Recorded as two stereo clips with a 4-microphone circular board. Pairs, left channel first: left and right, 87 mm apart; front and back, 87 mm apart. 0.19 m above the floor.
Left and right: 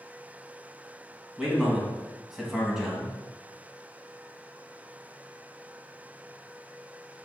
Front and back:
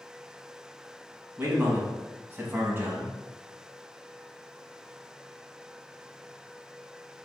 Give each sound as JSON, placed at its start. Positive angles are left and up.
{"t": 1.4, "sound": "a man speaking", "azimuth_deg": -170, "distance_m": 1.0}